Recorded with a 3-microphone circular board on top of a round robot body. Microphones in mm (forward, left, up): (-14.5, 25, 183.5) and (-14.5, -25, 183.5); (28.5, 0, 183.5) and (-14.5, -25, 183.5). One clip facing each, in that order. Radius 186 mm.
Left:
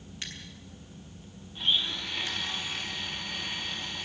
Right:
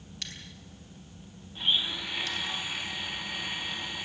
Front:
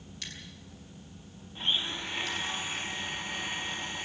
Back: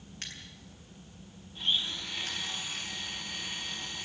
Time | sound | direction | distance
0.2 | scissors | 160° left | 6.5 m
1.6 | a blender | 10° right | 1.3 m